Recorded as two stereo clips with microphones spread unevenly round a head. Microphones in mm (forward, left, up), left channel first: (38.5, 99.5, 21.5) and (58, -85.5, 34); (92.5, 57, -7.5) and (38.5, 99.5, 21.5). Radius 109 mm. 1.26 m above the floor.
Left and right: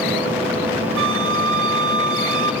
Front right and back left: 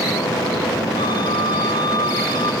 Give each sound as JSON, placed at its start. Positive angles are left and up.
{"t": 1.0, "sound": "a flute", "azimuth_deg": -105, "distance_m": 0.9}